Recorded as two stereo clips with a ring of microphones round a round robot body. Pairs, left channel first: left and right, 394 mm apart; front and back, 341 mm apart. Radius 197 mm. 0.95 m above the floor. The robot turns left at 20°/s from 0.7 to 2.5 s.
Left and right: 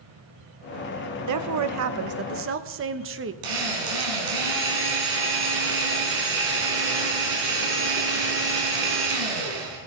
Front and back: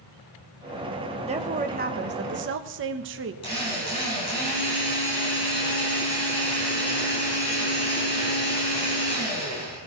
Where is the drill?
80° right, 5.5 m.